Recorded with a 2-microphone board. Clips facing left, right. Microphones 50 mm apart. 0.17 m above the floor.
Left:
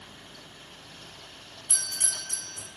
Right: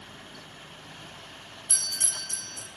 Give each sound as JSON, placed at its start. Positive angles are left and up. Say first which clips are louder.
{"t": 1.7, "sound": "a doorbell", "louder": "even", "side_deg": 20, "distance_m": 1.5}